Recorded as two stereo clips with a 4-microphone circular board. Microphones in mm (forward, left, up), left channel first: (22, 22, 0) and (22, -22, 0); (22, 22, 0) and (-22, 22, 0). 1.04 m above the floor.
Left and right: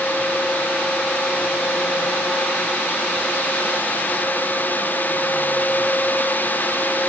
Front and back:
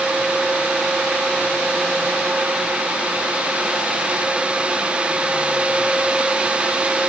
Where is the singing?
No singing in this recording.